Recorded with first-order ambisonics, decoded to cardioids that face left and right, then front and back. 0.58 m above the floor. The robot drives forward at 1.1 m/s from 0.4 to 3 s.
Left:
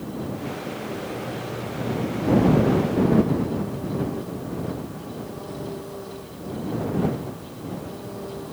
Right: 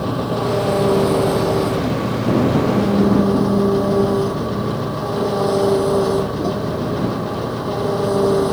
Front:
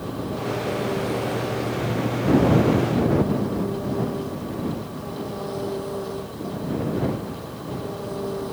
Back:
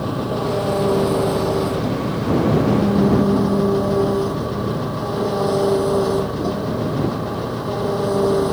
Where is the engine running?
120° right; by 8.5 s 125° right.